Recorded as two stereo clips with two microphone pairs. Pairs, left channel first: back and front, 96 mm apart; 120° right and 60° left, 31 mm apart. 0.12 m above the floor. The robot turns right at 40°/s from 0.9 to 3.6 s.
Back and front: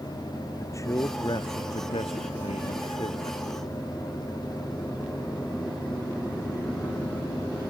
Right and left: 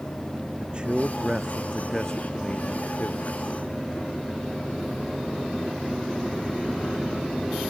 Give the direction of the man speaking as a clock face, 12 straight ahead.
8 o'clock.